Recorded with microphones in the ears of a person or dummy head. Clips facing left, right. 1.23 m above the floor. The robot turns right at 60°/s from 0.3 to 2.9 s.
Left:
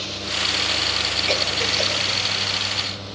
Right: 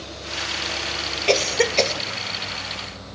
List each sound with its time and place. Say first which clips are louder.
1.3 s a cough: right 8 dB; 60° right (ahead or behind), 1.9 m; by 1.9 s 75° right (ahead or behind), 1.9 m